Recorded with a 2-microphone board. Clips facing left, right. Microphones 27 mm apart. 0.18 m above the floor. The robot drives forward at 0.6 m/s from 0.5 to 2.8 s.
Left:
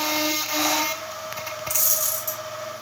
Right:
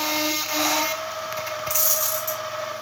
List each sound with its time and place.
1.7 s a dropped coin: 15° right (ahead or behind), 1.2 m; by 2.4 s 10° right (ahead or behind), 1.6 m